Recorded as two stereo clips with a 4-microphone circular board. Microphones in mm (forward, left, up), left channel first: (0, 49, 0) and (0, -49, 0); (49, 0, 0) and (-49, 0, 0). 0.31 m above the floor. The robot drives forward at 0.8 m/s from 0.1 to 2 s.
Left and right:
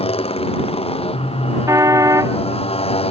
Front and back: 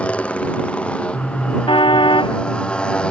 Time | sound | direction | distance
0.0 | a motorcycle | 75° left | ?
1.7 | a car horn | 35° right | ?